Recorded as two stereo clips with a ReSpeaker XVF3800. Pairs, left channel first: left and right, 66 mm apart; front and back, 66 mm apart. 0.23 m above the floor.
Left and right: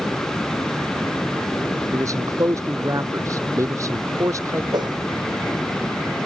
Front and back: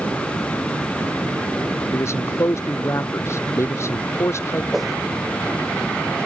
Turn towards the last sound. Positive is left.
turn(degrees=-95)